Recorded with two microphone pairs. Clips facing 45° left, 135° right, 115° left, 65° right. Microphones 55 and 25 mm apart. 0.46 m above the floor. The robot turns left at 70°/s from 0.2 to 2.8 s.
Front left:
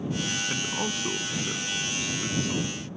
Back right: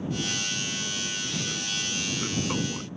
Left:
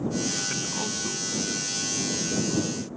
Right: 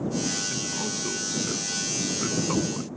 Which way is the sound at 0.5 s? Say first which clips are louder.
Front left 3 dB, even; 60° left.